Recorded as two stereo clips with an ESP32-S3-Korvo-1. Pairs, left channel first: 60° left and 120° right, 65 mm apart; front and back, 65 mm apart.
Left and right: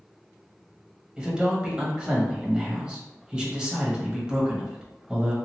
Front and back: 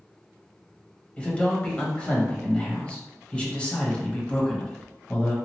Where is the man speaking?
55° right, 1.0 m.